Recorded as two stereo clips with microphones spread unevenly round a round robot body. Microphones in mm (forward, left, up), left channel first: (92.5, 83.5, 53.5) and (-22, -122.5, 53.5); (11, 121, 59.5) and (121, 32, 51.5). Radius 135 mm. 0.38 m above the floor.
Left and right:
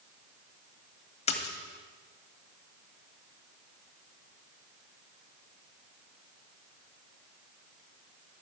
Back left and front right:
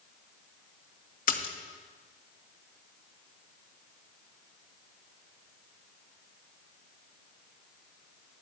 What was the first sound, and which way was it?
A splash, 125° left.